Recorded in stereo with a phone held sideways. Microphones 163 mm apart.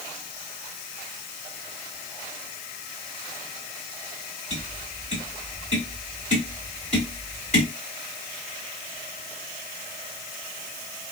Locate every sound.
4.5 s tapping: 45° left (ahead or behind), 2.5 m